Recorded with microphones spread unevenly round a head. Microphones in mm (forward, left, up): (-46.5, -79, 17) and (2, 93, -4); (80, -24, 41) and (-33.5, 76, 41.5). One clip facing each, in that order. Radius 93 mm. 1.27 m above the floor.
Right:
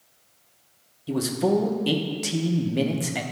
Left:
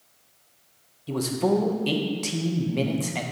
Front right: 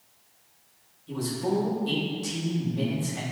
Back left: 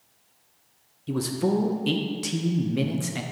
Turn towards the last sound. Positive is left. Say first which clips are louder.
# right 1 dB, back left 3 dB
turn(degrees=175)